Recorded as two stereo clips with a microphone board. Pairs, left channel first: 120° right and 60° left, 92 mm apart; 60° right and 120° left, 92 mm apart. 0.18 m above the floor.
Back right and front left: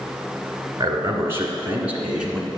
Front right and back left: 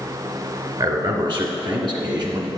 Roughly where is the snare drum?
I don't hear a snare drum.